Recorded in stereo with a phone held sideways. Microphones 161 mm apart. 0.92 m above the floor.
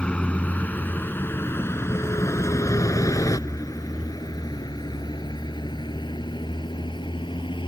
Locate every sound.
0.0 s a vehicle: 5° left (ahead or behind); by 7.7 s 30° left (ahead or behind)